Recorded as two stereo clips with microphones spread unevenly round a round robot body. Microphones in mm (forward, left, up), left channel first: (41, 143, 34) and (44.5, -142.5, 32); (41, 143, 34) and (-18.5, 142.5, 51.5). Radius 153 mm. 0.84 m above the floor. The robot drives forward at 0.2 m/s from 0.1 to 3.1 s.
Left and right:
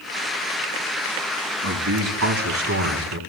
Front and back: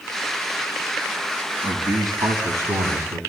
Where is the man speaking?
135° right, 6 m; by 3.2 s 140° right, 6 m.